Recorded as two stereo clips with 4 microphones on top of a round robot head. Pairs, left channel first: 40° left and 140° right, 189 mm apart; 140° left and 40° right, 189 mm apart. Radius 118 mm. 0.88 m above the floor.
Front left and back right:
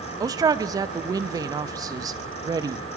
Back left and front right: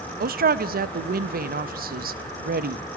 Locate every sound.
0.2 s a man speaking: 70° right, 0.8 m